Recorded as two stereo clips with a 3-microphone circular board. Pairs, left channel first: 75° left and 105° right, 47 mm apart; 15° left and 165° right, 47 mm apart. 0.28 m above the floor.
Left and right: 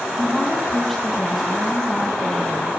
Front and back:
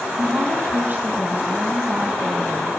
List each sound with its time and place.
0.2 s a woman speaking: 160° left, 2.5 m